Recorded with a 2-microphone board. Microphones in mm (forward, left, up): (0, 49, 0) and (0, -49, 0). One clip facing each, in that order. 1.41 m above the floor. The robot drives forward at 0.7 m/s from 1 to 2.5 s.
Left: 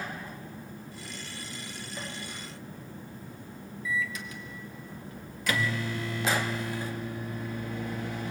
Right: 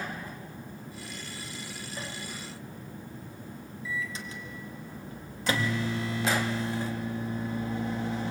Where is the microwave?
30° right (ahead or behind), 1.9 m.